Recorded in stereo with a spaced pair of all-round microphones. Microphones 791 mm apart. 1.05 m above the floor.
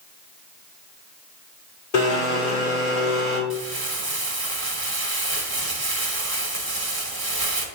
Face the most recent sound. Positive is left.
turn(degrees=-30)  # may be behind; listen again after turning